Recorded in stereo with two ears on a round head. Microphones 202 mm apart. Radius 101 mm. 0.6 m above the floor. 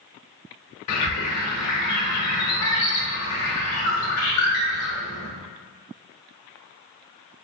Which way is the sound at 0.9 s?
70° left (ahead or behind).